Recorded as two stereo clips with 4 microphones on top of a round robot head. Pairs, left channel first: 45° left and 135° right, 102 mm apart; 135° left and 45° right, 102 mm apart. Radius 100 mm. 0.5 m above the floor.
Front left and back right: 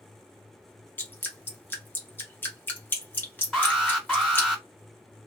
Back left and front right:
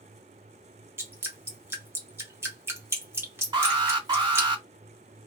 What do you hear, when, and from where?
1.0 s dripping: 5° right, 1.2 m
3.5 s an alarm: 45° right, 2 m